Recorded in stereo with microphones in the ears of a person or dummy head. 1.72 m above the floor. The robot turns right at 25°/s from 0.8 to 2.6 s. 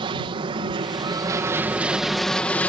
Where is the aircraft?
35° right; by 2.7 s 10° left.